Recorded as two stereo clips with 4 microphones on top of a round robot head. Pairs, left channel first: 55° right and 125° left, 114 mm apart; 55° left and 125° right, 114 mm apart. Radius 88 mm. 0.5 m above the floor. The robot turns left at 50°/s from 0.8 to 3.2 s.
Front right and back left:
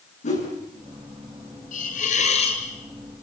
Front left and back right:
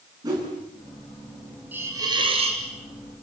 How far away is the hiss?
About 2.5 m.